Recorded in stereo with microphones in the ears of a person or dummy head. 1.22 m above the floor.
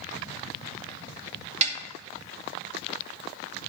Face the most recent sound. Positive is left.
turn(degrees=-35)  # may be behind; listen again after turning